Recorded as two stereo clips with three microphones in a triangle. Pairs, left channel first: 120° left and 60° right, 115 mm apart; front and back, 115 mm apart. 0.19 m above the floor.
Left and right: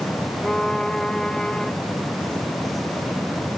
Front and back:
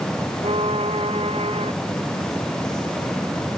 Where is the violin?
155° right.